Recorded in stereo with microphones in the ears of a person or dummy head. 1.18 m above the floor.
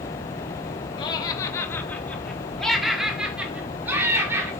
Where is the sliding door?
I don't hear a sliding door.